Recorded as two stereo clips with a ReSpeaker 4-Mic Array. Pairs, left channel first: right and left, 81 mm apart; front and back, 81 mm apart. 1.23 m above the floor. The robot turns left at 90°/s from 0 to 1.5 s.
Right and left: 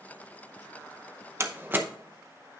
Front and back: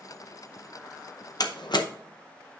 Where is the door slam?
35° left, 0.8 m; by 1.9 s 25° left, 0.8 m.